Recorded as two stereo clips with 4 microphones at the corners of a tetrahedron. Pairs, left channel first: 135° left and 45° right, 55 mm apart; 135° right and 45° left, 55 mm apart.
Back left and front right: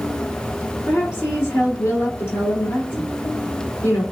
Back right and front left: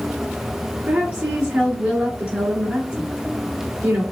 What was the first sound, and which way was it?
A woman speaking, 120° left.